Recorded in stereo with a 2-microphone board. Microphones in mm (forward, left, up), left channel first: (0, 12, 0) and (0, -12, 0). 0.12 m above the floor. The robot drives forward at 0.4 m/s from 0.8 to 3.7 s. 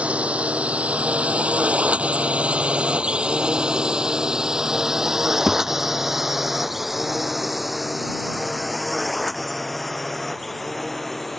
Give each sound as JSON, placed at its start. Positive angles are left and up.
{"t": 0.0, "sound": "a drone", "side_deg": -65}
{"t": 5.5, "sound": "a thud", "side_deg": -30}